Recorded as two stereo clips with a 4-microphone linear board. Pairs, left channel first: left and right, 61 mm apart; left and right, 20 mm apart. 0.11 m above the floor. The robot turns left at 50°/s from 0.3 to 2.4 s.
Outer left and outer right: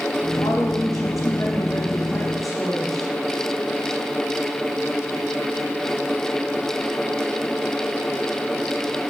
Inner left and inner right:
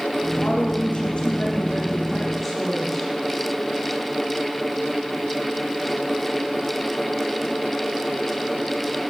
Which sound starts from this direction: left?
A woman speaking, at 0.4 s.